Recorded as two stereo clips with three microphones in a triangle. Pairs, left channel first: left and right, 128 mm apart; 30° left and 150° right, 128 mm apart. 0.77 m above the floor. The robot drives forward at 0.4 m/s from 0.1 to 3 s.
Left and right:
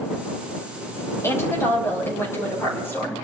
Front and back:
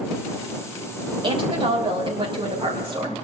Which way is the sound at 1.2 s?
160° left.